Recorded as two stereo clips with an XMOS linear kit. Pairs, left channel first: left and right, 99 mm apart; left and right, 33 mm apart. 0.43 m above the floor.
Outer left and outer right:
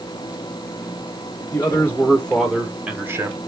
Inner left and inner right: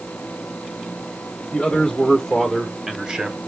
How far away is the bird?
No bird in this recording.